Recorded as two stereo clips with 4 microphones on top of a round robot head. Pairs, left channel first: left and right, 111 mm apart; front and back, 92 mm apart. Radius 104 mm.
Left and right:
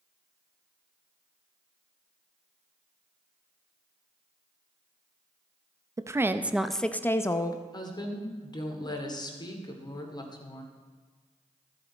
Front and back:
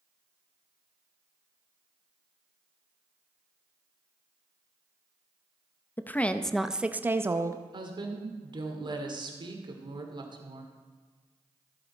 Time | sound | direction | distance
6.0 | a woman speaking | 55° right | 0.6 m
7.7 | a woman speaking | 140° left | 2 m